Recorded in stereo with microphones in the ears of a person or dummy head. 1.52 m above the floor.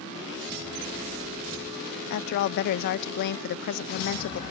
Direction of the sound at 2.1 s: 55° left (ahead or behind).